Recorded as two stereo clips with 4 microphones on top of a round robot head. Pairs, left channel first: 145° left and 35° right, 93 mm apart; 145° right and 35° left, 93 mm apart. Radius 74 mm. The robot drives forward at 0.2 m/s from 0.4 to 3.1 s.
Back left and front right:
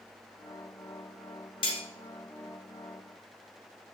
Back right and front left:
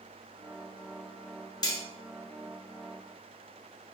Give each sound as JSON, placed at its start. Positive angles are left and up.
{"t": 1.6, "sound": "cutlery clinking", "azimuth_deg": 175, "distance_m": 0.6}